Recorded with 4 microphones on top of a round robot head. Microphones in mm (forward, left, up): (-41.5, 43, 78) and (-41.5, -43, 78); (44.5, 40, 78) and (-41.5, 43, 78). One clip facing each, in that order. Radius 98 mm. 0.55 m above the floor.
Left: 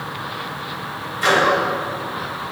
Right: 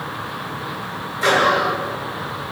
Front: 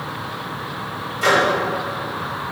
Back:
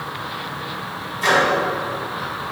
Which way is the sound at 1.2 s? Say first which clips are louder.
Even, front 1 dB; 25° right.